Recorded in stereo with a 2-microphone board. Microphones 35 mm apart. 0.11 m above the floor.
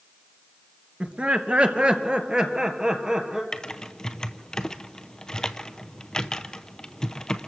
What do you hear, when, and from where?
1.0 s laughter: 45° right (ahead or behind), 2.0 m; by 3.4 s 20° right (ahead or behind), 3 m
3.5 s typing on a keyboard: 20° left (ahead or behind), 0.7 m